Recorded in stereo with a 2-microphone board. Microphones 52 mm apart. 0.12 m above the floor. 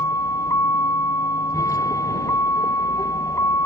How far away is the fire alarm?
No fire alarm in this recording.